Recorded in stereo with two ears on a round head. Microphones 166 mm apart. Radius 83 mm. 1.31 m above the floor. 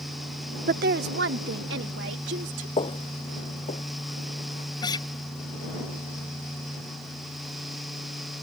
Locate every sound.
0.7 s a woman speaking: 45° right (ahead or behind); by 2.7 s 65° right (ahead or behind)
2.8 s footsteps: 30° left (ahead or behind); by 4.7 s 40° left (ahead or behind)
4.8 s a guitar: 25° left (ahead or behind)